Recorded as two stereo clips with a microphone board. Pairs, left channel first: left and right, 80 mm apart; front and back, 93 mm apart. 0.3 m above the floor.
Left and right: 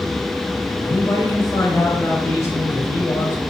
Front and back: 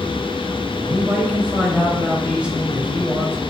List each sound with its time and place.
0.8 s a man speaking: 110° left, 1.0 m